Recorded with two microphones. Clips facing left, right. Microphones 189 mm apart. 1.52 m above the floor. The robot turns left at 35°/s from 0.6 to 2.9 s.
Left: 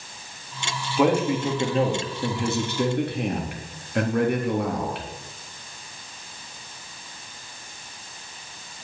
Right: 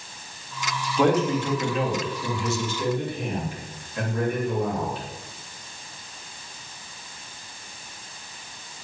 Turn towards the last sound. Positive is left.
turn(degrees=110)